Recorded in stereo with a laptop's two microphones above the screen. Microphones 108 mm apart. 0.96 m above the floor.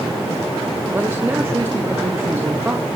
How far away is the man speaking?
About 0.9 m.